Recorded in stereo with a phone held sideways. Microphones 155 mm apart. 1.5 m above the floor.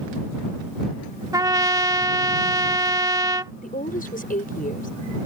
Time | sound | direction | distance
1.3 | a trumpet | 25° right (ahead or behind) | ?
3.6 | a woman speaking | 65° left (ahead or behind) | ?